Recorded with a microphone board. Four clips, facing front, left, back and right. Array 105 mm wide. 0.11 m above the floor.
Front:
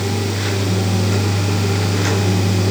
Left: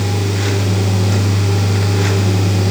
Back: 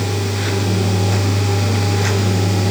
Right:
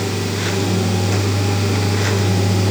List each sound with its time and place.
Only background noise.